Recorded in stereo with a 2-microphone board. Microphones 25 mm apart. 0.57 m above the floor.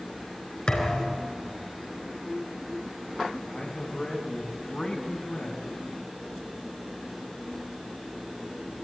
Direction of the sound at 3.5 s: 25° left (ahead or behind).